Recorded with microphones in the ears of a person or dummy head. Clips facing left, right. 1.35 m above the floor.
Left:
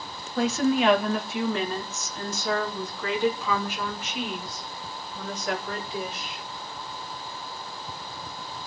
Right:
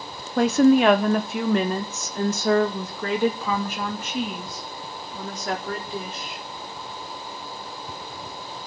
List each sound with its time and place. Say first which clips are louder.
0.4 s a woman speaking: right 7 dB; 45° right (ahead or behind), 0.6 m; by 6.4 s 40° right (ahead or behind), 4.5 m